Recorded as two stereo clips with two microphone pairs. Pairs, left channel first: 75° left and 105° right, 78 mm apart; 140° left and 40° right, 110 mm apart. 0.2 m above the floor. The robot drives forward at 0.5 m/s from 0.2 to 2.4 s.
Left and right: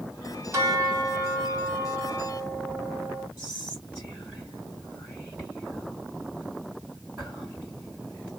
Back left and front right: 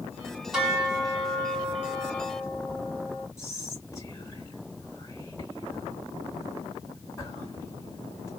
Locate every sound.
0.5 s a bell: 115° right, 1.6 m; by 3.3 s 150° right, 2 m
3.4 s whispering: 160° right, 2.5 m